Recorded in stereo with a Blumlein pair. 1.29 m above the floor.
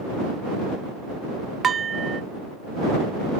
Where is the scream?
No scream in this recording.